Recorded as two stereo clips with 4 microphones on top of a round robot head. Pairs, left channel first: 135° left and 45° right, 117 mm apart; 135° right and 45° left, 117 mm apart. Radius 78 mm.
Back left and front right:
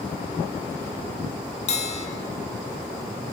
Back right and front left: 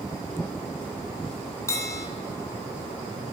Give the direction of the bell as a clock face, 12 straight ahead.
7 o'clock.